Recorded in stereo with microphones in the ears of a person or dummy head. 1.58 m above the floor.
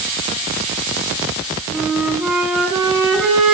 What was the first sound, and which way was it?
A flute, 5° right (ahead or behind).